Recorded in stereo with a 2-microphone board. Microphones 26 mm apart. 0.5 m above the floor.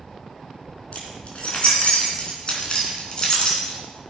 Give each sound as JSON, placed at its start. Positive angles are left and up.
{"t": 0.9, "sound": "keys jangling", "side_deg": 50, "distance_m": 3.5}